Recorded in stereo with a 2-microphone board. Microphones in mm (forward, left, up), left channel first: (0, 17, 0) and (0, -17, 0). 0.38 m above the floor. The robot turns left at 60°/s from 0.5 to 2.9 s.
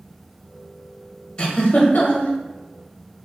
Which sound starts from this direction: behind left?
A giggle, at 1.4 s.